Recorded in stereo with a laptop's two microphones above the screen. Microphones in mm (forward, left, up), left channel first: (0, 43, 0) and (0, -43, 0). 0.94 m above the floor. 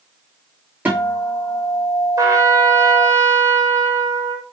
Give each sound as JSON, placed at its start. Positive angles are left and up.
{"t": 0.8, "sound": "a guitar", "side_deg": -20, "distance_m": 1.9}
{"t": 2.2, "sound": "a trumpet", "side_deg": -45, "distance_m": 0.8}